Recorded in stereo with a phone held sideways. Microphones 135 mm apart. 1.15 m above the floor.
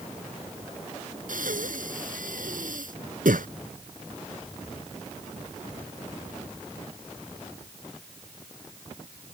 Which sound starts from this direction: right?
Breathing, at 1.3 s.